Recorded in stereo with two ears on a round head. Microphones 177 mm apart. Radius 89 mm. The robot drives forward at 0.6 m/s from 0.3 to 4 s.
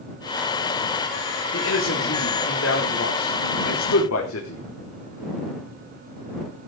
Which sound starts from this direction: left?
A man speaking, at 1.5 s.